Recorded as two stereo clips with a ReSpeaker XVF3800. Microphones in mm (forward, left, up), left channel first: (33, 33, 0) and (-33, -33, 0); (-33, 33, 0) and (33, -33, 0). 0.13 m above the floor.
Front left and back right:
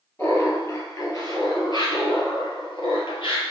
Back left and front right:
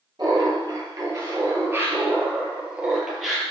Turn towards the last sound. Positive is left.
turn(degrees=45)